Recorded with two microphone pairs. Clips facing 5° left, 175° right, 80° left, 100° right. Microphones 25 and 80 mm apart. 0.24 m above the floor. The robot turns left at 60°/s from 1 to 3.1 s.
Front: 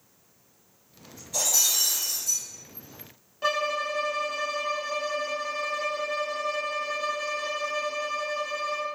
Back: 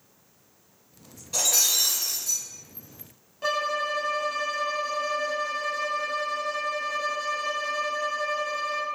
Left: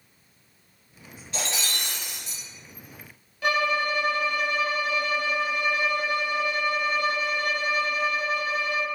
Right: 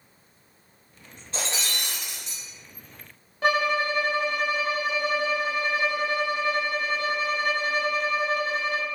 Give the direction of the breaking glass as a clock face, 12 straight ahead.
5 o'clock.